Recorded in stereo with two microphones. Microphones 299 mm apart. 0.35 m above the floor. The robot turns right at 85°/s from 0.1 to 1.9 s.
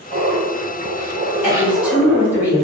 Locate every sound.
0.1 s laughter: 140° right, 1.2 m; by 2.4 s 15° left, 1.2 m
1.4 s a woman speaking: 150° left, 1.7 m; by 2.6 s 170° right, 1.7 m